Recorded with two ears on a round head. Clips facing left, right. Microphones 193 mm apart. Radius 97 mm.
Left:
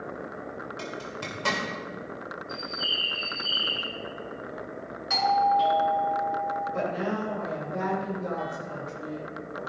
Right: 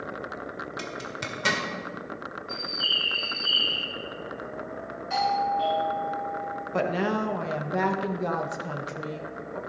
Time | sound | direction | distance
0.8 | a zipper | 25° right (ahead or behind) | 1.6 m
2.5 | a bird | 25° right (ahead or behind) | 2 m
5.1 | a doorbell | 55° left (ahead or behind) | 3.5 m
6.7 | a woman speaking | 70° right (ahead or behind) | 1.6 m